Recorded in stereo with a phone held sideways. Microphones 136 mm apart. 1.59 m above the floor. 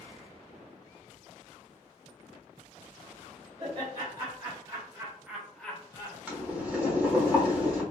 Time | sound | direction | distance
3.6 | laughter | 45° right (ahead or behind) | 1.8 m
6.3 | boiling | 10° right (ahead or behind) | 1.1 m